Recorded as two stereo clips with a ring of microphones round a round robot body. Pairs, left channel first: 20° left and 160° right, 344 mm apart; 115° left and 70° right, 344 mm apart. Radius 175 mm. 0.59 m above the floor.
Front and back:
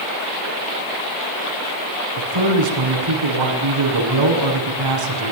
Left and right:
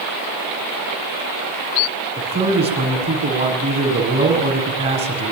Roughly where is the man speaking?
Behind right.